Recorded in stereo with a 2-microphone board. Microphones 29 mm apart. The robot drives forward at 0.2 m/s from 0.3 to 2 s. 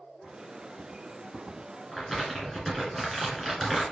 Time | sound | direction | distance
1.9 | crumpling | 10° left (ahead or behind) | 1.6 m